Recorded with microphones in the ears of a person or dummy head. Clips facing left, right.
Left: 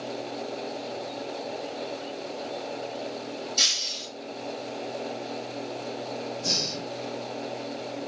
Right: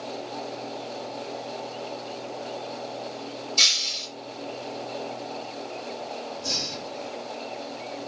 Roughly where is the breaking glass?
Centre.